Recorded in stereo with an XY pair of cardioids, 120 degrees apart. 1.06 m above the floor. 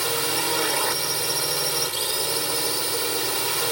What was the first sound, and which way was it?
A drone, 5° right.